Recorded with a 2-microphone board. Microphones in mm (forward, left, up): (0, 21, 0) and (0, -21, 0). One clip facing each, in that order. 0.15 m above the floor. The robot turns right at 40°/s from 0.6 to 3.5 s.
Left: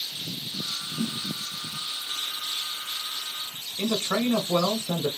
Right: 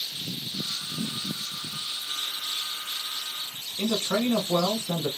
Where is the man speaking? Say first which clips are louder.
Even; 20° left (ahead or behind), 1.3 m.